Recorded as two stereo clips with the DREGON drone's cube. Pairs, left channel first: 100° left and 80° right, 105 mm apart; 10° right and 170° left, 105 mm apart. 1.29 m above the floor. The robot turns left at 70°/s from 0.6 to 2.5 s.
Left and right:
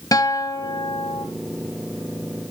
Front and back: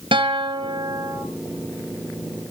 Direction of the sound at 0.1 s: 150° left.